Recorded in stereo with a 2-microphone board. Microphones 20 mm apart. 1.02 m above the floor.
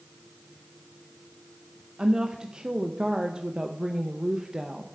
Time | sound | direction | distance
2.0 | a woman speaking | 35° right (ahead or behind) | 0.5 m